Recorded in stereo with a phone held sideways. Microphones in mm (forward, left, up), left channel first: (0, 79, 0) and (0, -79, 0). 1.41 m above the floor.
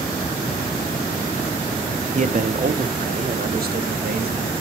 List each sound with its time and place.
2.1 s a man speaking: 50° right (ahead or behind), 1.0 m; by 4.5 s 85° right, 2.5 m